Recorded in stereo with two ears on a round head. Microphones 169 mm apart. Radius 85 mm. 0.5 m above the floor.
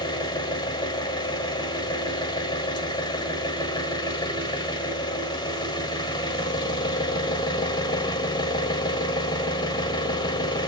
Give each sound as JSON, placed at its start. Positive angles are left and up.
{"t": 0.0, "sound": "an engine running", "side_deg": 25, "distance_m": 1.1}